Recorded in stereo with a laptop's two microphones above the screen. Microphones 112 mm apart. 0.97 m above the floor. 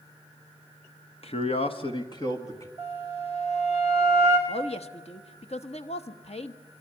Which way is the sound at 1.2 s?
60° left (ahead or behind).